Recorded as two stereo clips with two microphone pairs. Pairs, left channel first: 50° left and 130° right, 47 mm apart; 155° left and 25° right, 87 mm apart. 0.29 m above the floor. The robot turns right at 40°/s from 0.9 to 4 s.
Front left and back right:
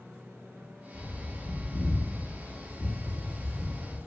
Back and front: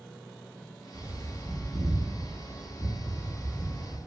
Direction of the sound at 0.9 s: 15° left.